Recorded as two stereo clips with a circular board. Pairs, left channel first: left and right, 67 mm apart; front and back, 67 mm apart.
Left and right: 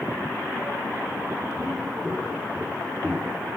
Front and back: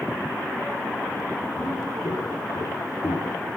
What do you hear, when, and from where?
1.6 s footsteps: 5° left, 4.5 m; by 3.4 s 15° left, 3 m